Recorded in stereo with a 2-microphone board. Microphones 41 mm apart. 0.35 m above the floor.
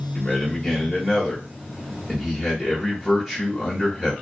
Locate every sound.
0.1 s a man speaking: 10° right (ahead or behind), 1.1 m